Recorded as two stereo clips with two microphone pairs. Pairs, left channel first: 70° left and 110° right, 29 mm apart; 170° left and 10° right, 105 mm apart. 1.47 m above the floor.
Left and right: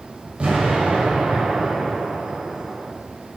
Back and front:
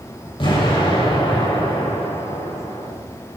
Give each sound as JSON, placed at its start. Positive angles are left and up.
{"t": 0.4, "sound": "an explosion", "azimuth_deg": -155, "distance_m": 6.5}